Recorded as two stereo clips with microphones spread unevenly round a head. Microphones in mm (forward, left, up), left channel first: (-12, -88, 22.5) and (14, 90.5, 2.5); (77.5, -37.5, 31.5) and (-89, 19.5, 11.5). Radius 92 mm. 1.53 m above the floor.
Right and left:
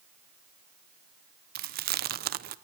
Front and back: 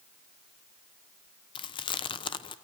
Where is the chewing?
40° left, 0.7 m.